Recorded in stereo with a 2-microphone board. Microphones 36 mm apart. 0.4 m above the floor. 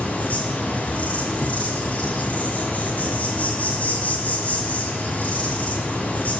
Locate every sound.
0.0 s an insect: 45° left (ahead or behind), 1.2 m